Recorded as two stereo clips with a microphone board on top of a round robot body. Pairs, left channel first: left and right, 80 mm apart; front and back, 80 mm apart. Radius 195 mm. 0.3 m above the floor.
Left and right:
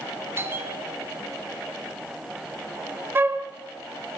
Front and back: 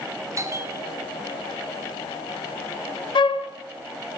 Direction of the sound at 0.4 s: 140° right.